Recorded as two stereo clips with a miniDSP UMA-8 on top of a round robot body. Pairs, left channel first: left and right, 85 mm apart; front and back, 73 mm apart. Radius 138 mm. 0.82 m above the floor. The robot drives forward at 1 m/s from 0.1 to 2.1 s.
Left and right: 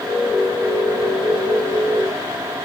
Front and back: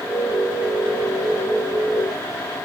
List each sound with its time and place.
Only background noise.